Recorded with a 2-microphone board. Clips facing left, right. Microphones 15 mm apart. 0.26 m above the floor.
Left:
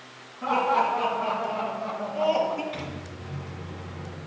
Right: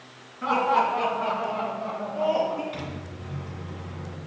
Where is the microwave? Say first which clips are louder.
Even; 10° left (ahead or behind), 1.7 m.